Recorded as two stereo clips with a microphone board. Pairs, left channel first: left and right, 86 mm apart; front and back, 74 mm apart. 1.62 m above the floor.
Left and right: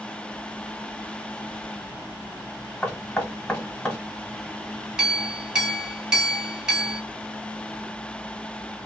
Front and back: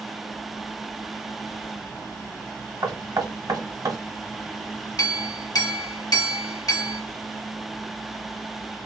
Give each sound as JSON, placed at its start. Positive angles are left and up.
{"t": 2.8, "sound": "knocking", "azimuth_deg": 160, "distance_m": 1.3}
{"t": 5.0, "sound": "a clink", "azimuth_deg": -10, "distance_m": 1.6}